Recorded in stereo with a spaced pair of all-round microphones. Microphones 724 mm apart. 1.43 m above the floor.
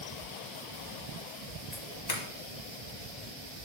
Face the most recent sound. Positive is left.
turn(degrees=65)  # may be behind; listen again after turning